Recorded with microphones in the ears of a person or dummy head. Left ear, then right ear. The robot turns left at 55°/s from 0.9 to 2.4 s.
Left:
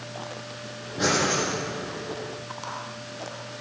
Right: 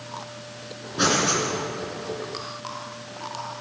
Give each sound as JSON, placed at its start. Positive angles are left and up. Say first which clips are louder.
{"t": 1.0, "sound": "breathing", "louder": "right 2 dB", "side_deg": -50, "distance_m": 2.5}